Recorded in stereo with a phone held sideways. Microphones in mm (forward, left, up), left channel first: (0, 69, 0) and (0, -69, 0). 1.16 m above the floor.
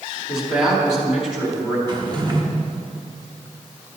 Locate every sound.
0.3 s a man speaking: 10° right (ahead or behind), 3.5 m
1.9 s a drawer: 35° right (ahead or behind), 1.1 m